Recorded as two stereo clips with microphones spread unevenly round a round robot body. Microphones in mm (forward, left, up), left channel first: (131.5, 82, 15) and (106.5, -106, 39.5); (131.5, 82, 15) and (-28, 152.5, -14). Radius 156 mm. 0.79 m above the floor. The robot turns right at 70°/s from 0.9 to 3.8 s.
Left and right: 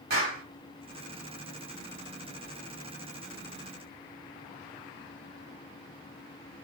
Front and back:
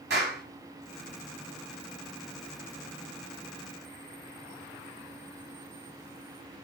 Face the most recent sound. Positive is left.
turn(degrees=45)